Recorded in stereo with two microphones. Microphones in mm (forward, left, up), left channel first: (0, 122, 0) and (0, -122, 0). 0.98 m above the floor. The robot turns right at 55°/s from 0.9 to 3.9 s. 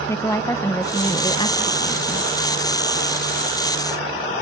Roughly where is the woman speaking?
Centre.